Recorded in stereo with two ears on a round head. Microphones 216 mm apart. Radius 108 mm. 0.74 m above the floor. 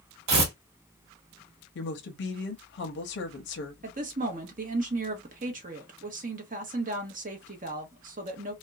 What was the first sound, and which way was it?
Tearing paper, 85° right.